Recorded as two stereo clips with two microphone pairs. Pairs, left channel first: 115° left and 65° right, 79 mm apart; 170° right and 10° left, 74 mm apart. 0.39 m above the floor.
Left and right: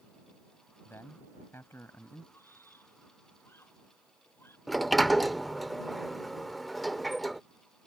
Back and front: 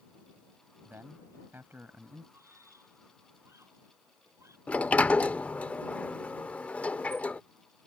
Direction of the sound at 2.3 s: 55° left.